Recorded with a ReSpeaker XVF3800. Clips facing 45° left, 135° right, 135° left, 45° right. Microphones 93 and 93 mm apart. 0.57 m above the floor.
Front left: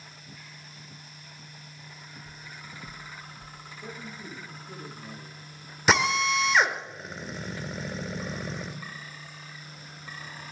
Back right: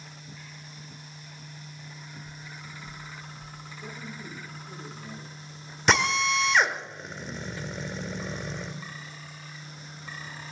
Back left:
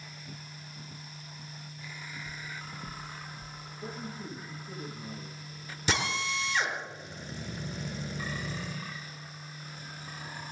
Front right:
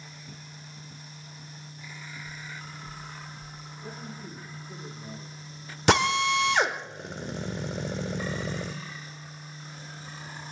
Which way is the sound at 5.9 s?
40° right.